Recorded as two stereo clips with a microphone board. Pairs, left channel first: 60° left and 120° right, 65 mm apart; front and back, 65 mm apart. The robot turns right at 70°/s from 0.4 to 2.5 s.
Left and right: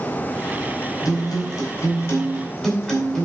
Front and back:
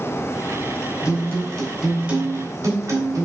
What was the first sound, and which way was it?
A guitar, 35° left.